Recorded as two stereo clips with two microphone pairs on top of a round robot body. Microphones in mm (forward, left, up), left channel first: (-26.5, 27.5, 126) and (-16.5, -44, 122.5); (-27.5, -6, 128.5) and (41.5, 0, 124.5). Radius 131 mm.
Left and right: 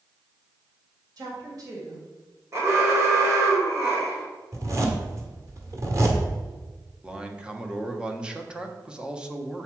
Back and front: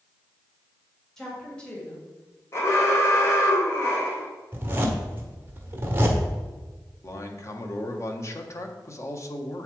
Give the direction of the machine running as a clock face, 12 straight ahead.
I don't hear a machine running.